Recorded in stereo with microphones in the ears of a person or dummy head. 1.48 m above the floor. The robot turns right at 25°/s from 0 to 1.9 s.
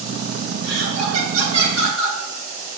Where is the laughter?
95° right, 2.5 m; by 2.2 s 65° right, 2.5 m.